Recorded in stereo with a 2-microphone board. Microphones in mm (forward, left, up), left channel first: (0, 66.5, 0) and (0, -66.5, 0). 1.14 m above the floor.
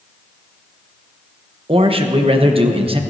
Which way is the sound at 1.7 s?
45° right (ahead or behind).